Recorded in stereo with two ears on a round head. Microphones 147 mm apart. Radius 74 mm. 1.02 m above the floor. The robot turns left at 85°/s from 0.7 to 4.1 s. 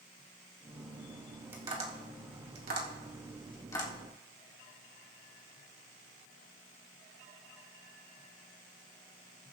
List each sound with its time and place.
1.5 s tapping: 15° right (ahead or behind), 1.8 m; by 3.9 s 40° left (ahead or behind), 1.8 m